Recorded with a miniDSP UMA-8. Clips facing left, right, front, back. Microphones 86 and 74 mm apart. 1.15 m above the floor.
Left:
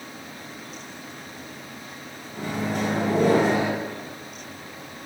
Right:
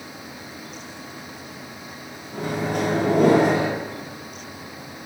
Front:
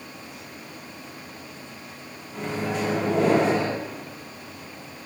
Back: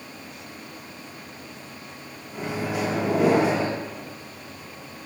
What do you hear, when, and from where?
2.3 s a microwave: 100° right, 0.6 m